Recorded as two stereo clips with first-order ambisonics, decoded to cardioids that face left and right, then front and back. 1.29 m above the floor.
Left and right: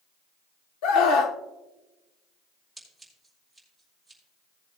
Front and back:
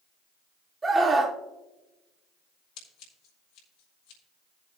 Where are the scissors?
5° left, 3 m.